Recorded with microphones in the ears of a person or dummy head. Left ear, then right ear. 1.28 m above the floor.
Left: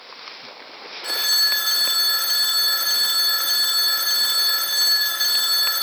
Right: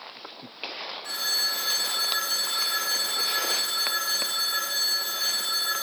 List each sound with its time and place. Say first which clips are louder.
1.0 s a phone ringing: left 8 dB; 45° left (ahead or behind), 0.5 m